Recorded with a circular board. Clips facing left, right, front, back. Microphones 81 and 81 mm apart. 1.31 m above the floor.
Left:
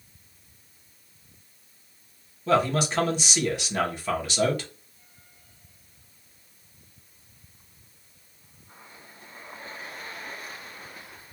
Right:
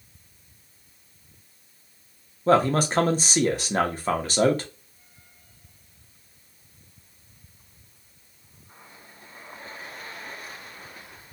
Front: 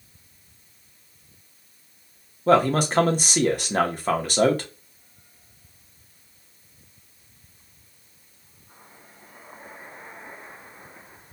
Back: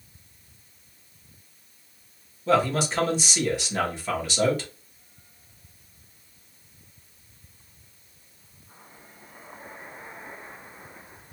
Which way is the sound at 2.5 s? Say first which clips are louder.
Right 3 dB, front 4 dB; 40° right.